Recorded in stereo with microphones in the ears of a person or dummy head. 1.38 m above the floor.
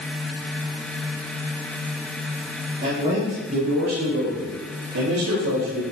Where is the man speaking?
25° right (ahead or behind), 2.5 m; by 5.8 s 80° right, 2.0 m.